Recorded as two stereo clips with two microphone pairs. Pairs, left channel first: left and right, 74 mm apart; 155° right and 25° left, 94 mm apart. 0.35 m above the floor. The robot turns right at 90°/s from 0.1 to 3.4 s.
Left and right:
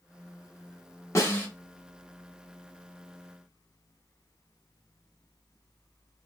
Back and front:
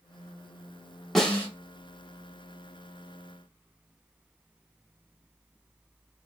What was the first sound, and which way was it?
A snare drum, 120° left.